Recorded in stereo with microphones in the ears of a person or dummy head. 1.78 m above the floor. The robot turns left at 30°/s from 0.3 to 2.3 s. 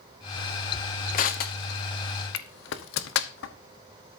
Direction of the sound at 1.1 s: 45° left (ahead or behind).